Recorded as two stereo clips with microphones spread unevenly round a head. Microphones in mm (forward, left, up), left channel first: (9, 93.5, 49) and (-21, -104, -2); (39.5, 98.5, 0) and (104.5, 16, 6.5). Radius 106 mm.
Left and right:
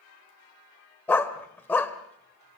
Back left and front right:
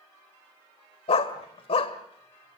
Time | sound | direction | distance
1.1 | a dog barking | 150° left | 1.4 m